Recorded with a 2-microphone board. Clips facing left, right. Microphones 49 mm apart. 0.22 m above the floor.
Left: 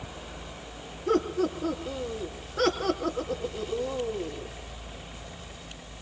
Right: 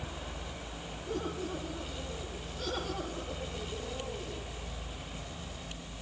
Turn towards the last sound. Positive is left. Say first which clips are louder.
# left 11 dB
turn(degrees=70)  # may be behind; listen again after turning